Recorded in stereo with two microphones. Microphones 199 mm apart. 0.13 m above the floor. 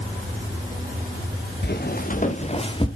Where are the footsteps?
55° left (ahead or behind), 2.5 m; by 2.9 s 25° left (ahead or behind), 2.5 m.